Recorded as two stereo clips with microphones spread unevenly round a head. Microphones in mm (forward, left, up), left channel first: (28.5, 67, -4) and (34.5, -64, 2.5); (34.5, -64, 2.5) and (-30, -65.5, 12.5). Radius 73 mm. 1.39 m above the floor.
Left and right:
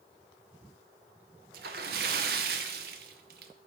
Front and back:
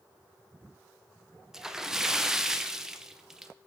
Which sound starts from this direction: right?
A splash, at 1.5 s.